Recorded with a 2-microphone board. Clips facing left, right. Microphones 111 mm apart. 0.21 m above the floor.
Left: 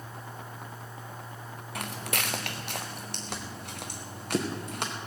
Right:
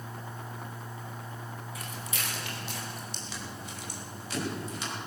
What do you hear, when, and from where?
1.8 s footsteps: 70° left (ahead or behind), 1.2 m; by 4.9 s 60° left (ahead or behind), 4 m